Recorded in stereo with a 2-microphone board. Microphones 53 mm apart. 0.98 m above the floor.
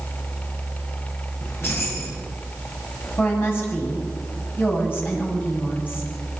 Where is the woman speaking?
40° left (ahead or behind), 8 m.